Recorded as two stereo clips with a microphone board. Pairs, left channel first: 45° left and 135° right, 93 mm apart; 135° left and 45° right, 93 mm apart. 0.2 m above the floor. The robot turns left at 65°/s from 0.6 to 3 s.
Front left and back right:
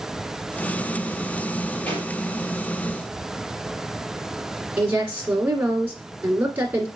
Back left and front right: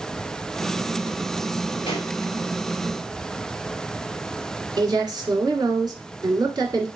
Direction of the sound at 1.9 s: 125° left.